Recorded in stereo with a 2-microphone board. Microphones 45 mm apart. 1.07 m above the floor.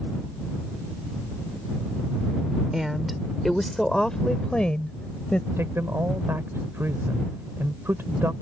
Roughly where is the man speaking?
Right.